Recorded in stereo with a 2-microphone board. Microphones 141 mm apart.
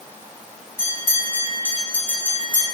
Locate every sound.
0.8 s a bell: 15° left (ahead or behind), 2 m